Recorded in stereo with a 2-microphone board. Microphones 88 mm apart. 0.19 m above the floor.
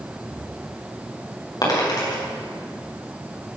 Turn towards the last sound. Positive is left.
turn(degrees=45)  # may be behind; listen again after turning